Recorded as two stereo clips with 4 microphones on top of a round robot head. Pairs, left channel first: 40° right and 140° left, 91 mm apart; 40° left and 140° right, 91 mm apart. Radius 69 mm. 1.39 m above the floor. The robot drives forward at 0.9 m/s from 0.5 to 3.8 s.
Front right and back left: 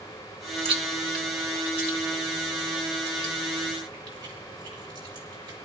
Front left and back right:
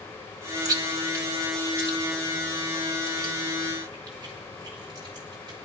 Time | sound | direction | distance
0.7 | chewing | 165° left | 1.0 m